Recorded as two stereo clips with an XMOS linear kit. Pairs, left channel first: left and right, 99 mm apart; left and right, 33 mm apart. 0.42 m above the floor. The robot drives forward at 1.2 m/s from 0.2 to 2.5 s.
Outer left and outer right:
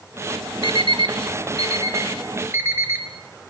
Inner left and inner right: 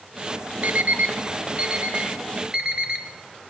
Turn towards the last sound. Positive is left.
turn(degrees=-25)  # may be behind; listen again after turning